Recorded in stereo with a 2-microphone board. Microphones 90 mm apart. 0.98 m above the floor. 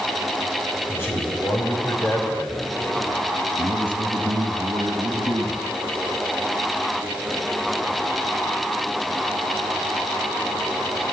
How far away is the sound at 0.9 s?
About 4 m.